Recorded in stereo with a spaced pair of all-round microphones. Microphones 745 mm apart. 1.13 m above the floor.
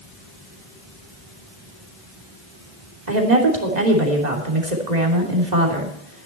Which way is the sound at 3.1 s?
65° right (ahead or behind).